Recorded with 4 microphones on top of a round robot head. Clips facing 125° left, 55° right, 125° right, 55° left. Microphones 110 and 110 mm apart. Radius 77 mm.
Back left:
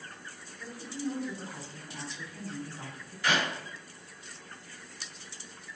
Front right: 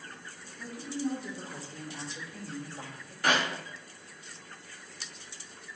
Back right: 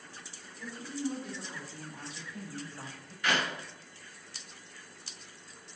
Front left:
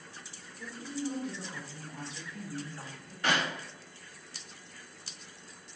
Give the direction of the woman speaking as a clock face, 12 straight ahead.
1 o'clock.